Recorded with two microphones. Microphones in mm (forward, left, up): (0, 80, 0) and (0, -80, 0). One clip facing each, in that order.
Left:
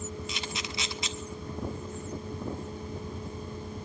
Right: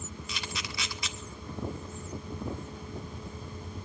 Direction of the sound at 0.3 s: 25° left (ahead or behind).